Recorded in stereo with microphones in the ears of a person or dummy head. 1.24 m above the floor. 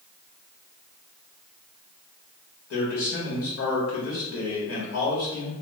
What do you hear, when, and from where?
2.7 s a man speaking: 70° left (ahead or behind), 1.5 m